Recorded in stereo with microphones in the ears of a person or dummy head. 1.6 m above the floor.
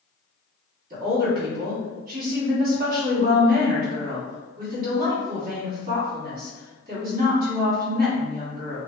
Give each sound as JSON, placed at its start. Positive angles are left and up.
{"t": 0.9, "sound": "a woman speaking", "side_deg": -60, "distance_m": 1.6}